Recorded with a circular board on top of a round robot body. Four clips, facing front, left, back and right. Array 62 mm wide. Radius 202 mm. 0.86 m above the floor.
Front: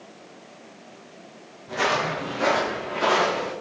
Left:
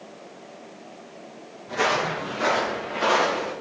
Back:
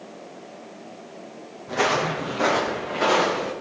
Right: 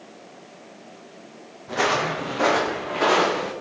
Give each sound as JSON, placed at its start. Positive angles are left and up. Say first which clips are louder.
{"t": 1.7, "sound": "footsteps", "louder": "right 1 dB, back 1 dB", "azimuth_deg": -125, "distance_m": 2.5}